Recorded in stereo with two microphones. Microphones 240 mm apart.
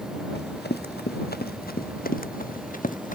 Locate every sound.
0.3 s running footsteps: 45° left (ahead or behind); by 3.1 s 35° left (ahead or behind)